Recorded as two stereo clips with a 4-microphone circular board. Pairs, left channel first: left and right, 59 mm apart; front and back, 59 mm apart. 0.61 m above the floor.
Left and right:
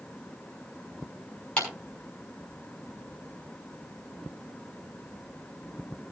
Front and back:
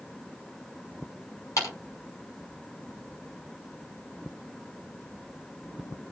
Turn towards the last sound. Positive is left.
turn(degrees=20)